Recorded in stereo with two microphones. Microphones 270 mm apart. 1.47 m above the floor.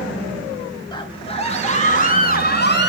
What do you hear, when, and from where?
0.9 s a scream: 15° left (ahead or behind), 3 m; by 2.9 s 40° left (ahead or behind), 3 m